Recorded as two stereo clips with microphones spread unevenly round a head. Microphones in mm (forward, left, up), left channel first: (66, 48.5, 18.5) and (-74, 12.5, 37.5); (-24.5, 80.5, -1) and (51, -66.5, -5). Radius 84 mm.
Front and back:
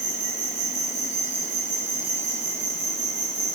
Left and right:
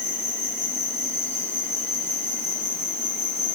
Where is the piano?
No piano in this recording.